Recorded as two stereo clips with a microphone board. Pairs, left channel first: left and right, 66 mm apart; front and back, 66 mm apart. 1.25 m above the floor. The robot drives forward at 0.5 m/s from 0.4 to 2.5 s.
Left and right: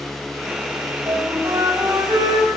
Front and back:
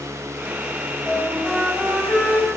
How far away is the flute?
About 5 m.